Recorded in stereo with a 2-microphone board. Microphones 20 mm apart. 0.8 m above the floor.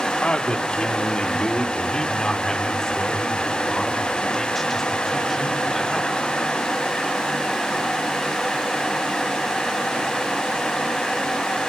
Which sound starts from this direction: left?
A man speaking, at 0.2 s.